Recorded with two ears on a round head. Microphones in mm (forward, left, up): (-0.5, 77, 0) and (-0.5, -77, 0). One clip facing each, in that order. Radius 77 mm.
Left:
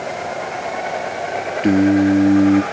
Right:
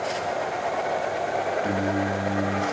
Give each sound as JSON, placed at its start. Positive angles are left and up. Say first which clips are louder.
{"t": 1.6, "sound": "singing", "louder": "left 12 dB", "side_deg": 80, "distance_m": 1.6}